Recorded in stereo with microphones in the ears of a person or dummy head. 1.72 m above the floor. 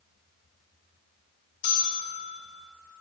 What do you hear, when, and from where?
1.6 s a bell: 40° left (ahead or behind), 1.8 m